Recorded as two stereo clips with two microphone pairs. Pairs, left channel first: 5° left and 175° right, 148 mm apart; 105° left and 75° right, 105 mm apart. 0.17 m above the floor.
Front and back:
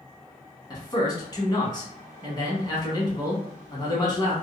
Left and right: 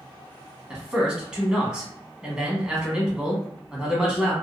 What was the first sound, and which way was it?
A man speaking, straight ahead.